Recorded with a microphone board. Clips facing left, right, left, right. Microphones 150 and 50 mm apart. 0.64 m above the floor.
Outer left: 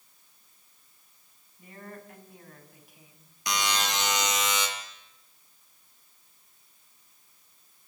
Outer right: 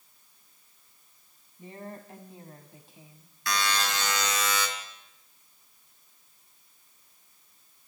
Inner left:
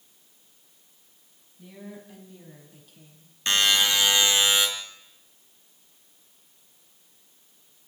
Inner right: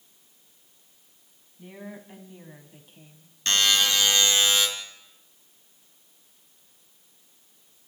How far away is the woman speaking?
About 4 m.